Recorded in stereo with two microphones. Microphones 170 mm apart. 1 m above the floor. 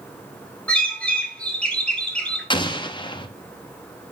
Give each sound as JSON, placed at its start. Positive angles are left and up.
{"t": 0.7, "sound": "a bird", "side_deg": 10, "distance_m": 1.7}
{"t": 2.5, "sound": "an explosion", "side_deg": 30, "distance_m": 0.8}